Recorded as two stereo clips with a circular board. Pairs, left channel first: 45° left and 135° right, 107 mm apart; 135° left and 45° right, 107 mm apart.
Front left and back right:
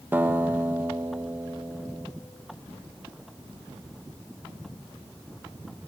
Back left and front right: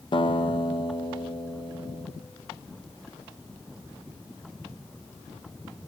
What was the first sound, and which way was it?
A guitar, 160° left.